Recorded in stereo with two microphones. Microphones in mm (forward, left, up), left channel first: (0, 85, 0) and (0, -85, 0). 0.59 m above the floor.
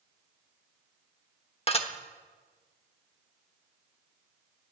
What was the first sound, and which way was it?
Dishes clattering, 35° left (ahead or behind).